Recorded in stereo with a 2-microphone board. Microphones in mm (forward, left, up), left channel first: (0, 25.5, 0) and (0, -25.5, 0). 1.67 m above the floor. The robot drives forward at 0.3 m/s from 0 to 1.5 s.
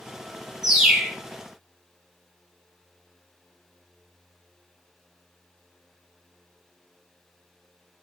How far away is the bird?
About 0.6 m.